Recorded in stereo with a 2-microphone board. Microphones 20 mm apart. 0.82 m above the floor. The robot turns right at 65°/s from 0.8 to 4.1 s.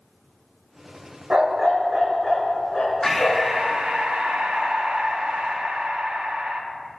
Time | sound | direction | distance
1.3 | a dog barking | 55° right | 0.9 m
3.0 | breathing | 165° left | 0.6 m